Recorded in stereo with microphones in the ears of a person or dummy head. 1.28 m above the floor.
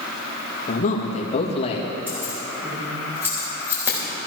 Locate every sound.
0.7 s a man speaking: 40° left (ahead or behind), 1.9 m; by 1.9 s 25° left (ahead or behind), 2 m
2.1 s keys jangling: 15° right (ahead or behind), 4.5 m